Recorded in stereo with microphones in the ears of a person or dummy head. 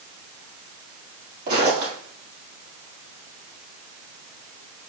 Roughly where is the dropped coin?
No dropped coin in this recording.